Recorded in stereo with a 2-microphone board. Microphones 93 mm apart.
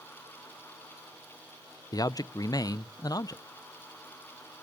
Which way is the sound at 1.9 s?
40° left (ahead or behind).